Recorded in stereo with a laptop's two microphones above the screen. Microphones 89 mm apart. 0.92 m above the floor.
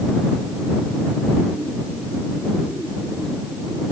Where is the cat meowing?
No cat meowing in this recording.